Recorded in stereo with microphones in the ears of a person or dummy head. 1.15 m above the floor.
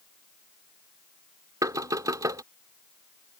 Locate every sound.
1.6 s knocking: 20° right (ahead or behind)